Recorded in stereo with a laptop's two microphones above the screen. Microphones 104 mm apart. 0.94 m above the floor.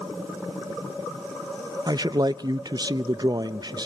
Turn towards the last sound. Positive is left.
turn(degrees=-40)  # may be behind; listen again after turning